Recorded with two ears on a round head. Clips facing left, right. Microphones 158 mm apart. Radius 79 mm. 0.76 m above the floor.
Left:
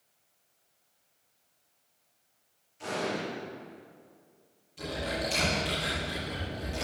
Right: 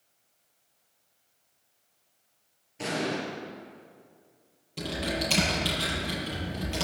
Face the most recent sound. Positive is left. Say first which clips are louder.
# right 2 dB
turn(degrees=-80)